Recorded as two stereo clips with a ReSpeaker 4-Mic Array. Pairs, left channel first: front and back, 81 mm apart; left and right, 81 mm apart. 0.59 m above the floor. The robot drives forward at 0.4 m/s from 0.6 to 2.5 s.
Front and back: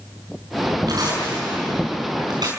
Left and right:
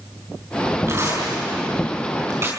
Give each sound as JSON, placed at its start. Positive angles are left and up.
{"t": 0.9, "sound": "tearing paper", "azimuth_deg": -140, "distance_m": 5.5}